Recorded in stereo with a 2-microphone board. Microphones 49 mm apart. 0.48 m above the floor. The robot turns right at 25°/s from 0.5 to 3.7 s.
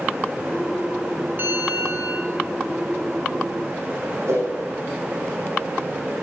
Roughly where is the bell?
Right.